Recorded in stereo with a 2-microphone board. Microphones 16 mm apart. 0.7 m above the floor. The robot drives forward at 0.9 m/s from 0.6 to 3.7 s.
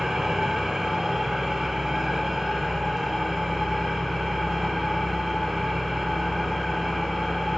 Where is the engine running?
25° right (ahead or behind), 2.5 m; by 7.6 s 10° right (ahead or behind), 5 m.